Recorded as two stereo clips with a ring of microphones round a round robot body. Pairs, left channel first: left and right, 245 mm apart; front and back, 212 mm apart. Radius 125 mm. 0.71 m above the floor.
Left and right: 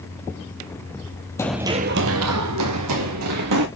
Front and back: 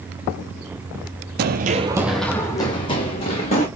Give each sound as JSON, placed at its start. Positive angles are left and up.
{"t": 1.4, "sound": "running footsteps", "azimuth_deg": 165, "distance_m": 0.9}